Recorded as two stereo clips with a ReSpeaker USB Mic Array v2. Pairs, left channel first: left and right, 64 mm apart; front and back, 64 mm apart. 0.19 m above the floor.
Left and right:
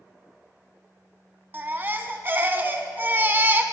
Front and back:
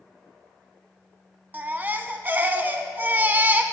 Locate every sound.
1.5 s a baby crying: 130° right, 0.6 m